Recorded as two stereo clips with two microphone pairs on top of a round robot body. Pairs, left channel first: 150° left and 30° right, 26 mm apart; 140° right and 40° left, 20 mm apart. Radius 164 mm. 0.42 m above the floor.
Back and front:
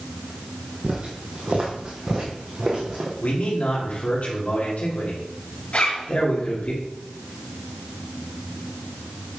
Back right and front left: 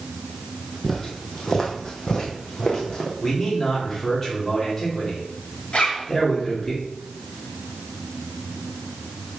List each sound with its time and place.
0.8 s footsteps: 60° right, 0.6 m; by 3.1 s 80° right, 1.8 m
3.2 s a man speaking: 155° left, 2.5 m
5.7 s a zipper: 170° right, 3.5 m